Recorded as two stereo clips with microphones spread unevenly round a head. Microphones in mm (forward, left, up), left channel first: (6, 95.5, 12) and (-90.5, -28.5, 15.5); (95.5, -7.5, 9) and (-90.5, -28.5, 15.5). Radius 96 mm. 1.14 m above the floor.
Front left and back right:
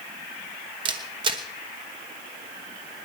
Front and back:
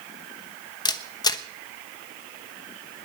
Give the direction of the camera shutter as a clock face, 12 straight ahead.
2 o'clock.